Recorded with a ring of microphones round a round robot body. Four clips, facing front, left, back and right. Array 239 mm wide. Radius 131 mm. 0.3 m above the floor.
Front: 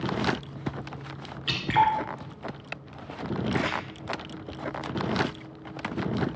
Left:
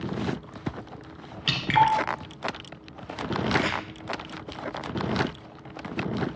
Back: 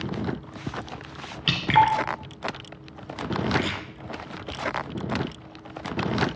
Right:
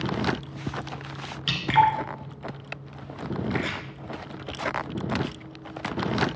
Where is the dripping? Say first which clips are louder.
Right 1 dB, back 3 dB; 170° left, 2 m.